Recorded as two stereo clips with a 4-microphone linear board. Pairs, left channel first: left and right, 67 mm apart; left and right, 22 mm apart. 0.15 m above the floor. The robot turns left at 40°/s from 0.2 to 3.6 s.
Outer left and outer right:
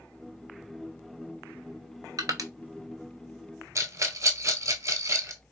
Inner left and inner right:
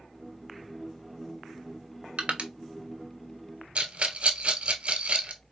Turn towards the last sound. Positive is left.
turn(degrees=-50)  # may be behind; listen again after turning